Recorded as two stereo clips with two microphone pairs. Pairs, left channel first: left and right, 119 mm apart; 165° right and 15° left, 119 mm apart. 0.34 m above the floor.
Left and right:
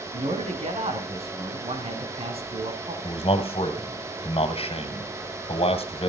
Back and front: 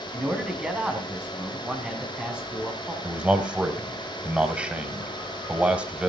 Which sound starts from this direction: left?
A man speaking, at 3.0 s.